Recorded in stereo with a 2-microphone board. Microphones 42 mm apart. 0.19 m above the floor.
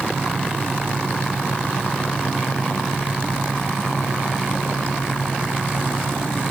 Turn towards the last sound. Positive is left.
No sound to turn to.